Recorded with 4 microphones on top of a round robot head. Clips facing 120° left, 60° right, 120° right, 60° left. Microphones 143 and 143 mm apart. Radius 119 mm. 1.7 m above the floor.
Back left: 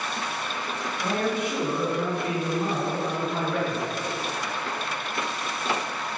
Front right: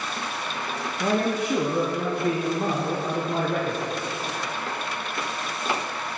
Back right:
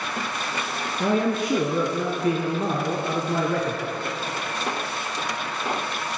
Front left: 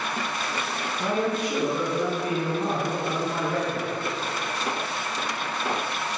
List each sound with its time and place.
1.0 s a man speaking: 115° right, 0.6 m